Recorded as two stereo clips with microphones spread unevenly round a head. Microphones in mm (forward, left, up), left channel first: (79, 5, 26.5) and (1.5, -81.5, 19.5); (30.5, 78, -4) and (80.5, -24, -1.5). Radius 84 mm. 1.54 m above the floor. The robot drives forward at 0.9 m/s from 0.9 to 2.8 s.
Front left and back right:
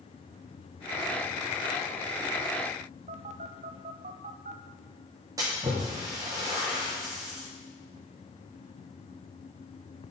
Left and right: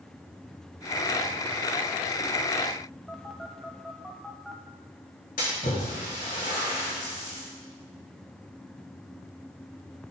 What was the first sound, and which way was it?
A phone buzzing, 155° right.